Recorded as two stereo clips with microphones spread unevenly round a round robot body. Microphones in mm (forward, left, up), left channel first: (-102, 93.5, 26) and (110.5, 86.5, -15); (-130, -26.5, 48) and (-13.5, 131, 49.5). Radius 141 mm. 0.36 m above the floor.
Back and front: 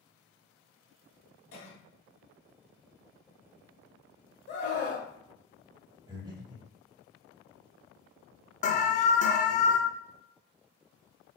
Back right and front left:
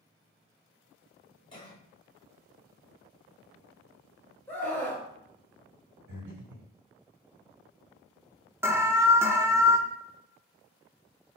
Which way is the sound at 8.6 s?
125° left.